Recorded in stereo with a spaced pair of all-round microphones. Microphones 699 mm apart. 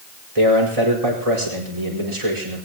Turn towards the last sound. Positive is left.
turn(degrees=-55)  # may be behind; listen again after turning